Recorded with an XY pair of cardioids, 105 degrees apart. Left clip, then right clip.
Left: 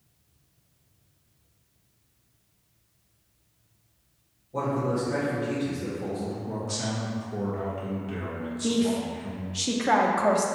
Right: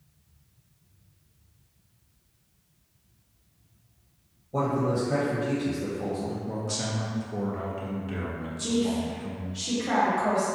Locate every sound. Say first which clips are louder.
4.5 s a man speaking: right 1 dB; 60° right, 1.1 m
6.5 s a man speaking: even; 15° right, 0.9 m
8.6 s a woman speaking: left 1 dB; 55° left, 0.6 m